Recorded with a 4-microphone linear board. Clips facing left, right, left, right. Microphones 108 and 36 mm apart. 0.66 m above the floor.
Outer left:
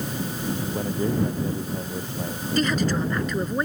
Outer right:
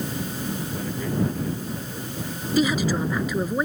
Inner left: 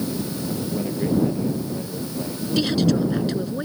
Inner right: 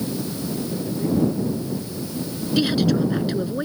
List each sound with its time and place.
0.6 s a man speaking: 30° left (ahead or behind)
2.6 s a woman speaking: 5° right (ahead or behind)